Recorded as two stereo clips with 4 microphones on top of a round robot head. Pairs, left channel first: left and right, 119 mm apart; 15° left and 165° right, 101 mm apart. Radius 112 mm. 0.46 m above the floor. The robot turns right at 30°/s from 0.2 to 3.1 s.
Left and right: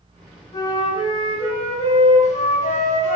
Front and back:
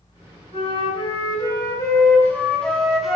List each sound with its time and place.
0.5 s a flute: 30° left, 2.5 m; by 3.2 s 105° left, 2.5 m